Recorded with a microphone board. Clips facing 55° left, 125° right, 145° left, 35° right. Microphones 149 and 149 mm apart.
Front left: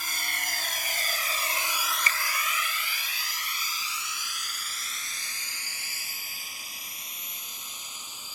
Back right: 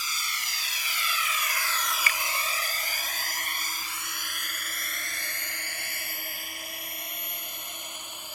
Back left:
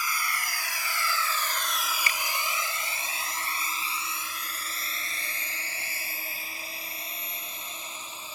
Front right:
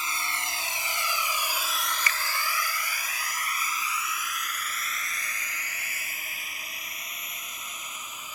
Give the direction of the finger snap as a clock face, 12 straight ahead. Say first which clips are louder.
Even, even; 9 o'clock.